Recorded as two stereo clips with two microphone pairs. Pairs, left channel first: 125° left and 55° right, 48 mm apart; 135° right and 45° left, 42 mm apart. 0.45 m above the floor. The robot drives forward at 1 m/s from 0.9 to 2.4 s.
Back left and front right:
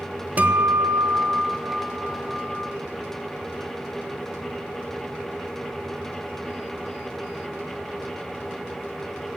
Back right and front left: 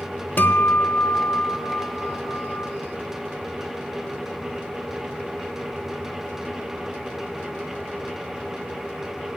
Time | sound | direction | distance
0.4 | a guitar | 105° right | 1.0 m